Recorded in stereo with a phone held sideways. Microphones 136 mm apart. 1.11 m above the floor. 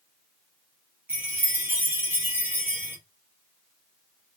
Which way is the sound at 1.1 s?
15° right (ahead or behind).